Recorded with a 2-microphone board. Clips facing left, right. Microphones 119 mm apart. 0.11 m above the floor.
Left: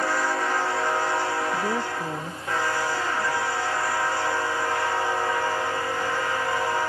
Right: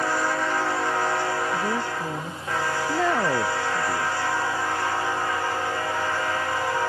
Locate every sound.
1.5 s a woman speaking: 5° left (ahead or behind)
2.9 s a man speaking: 75° right (ahead or behind)